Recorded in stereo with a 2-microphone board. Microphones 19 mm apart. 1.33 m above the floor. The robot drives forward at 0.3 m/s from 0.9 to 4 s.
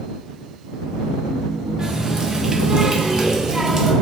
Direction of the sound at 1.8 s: 30° right (ahead or behind).